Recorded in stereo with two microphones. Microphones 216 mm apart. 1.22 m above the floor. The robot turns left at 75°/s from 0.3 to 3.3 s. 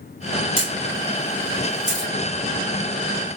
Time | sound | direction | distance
0.6 | a camera shutter | 40° left (ahead or behind) | 2.5 m